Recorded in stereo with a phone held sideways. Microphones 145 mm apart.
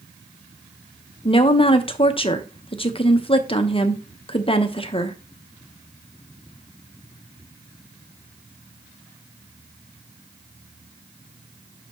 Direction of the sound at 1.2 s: 40° left (ahead or behind).